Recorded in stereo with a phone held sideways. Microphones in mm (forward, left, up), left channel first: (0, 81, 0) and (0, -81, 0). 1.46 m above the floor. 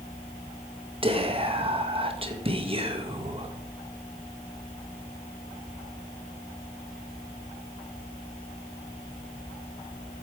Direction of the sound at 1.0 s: 35° right (ahead or behind).